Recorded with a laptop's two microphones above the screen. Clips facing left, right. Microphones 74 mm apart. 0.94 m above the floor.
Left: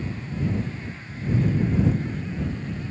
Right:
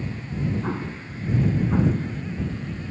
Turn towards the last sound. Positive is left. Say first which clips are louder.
# right 6 dB
turn(degrees=-80)